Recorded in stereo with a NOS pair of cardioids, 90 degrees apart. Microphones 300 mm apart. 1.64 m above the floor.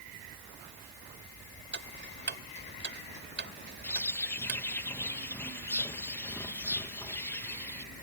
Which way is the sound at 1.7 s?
40° right.